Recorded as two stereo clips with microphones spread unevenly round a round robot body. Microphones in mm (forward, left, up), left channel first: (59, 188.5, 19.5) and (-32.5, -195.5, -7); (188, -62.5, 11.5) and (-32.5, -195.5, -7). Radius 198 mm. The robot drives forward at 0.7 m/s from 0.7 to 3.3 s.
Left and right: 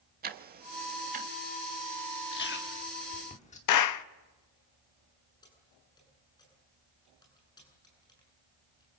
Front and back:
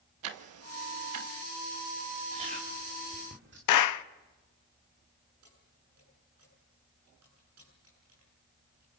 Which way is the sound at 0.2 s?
170° right.